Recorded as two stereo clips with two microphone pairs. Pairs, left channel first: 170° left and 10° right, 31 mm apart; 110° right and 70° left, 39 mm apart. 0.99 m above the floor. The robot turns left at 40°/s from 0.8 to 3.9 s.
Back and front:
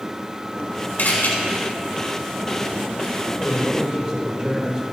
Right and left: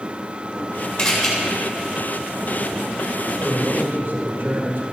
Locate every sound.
1.0 s a camera shutter: 175° left, 5 m; by 1.3 s 160° left, 5 m
3.4 s a man speaking: 70° left, 4 m; by 4.8 s 50° left, 4 m